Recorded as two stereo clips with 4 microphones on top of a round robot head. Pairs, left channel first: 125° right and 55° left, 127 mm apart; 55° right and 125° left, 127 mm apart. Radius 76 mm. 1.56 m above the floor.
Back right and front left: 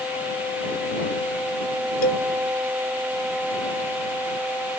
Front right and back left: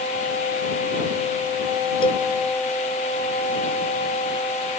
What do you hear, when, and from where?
2.0 s a cowbell: 110° right